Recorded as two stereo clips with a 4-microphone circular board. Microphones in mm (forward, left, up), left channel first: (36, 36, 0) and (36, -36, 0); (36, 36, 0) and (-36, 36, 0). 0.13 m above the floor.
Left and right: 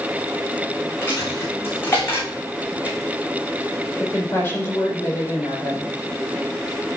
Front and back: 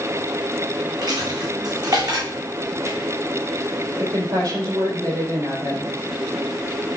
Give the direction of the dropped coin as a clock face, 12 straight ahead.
7 o'clock.